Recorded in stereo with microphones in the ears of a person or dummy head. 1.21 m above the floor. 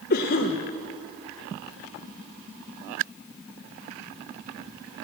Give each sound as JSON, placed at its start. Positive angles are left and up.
{"t": 0.1, "sound": "a cough", "side_deg": 45, "distance_m": 0.7}